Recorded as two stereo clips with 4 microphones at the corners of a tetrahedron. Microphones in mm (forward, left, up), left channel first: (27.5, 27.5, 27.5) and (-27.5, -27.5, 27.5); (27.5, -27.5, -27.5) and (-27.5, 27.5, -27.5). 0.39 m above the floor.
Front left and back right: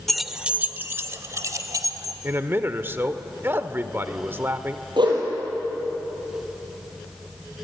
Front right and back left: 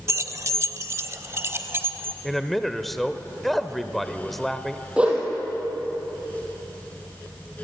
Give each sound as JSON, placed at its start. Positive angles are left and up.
{"t": 0.1, "sound": "keys jangling", "azimuth_deg": 130, "distance_m": 0.7}
{"t": 2.2, "sound": "a man speaking", "azimuth_deg": -130, "distance_m": 1.1}
{"t": 5.0, "sound": "a whoosh", "azimuth_deg": -150, "distance_m": 5.5}